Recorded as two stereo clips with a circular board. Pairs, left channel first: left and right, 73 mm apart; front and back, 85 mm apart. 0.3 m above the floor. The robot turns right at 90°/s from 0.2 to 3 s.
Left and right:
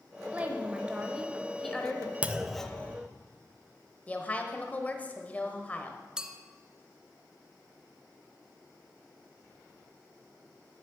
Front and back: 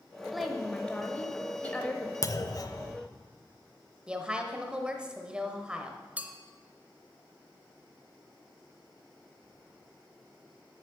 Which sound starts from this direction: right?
A woman speaking, at 0.3 s.